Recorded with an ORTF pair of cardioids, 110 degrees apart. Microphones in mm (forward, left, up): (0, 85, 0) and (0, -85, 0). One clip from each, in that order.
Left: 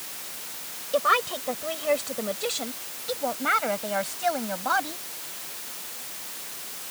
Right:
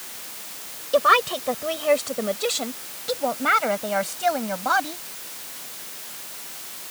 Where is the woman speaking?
30° right; by 5.0 s 20° right.